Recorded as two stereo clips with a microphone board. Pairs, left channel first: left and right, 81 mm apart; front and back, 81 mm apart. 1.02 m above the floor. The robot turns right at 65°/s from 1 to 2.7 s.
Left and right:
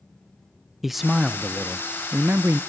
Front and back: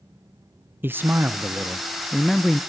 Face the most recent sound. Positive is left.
turn(degrees=-65)